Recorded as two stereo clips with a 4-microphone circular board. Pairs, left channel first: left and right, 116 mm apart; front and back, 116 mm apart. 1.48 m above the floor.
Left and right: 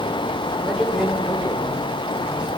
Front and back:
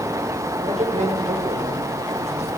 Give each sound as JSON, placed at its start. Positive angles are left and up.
{"t": 0.6, "sound": "a man speaking", "azimuth_deg": -175, "distance_m": 5.5}